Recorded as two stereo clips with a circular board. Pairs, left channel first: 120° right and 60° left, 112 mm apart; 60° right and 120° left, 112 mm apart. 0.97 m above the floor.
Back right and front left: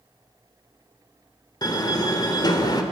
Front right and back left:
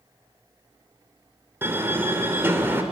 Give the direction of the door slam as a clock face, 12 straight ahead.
6 o'clock.